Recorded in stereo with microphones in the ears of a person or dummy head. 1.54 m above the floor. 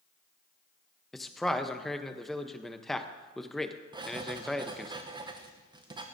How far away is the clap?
No clap in this recording.